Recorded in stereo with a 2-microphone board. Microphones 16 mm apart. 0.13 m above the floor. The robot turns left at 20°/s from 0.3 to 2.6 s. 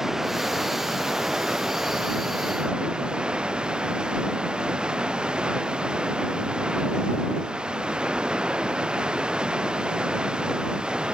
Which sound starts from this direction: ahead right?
Running water, at 0.0 s.